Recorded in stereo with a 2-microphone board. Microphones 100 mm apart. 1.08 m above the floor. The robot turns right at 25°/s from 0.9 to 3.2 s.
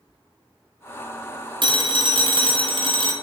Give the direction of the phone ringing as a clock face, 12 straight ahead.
4 o'clock.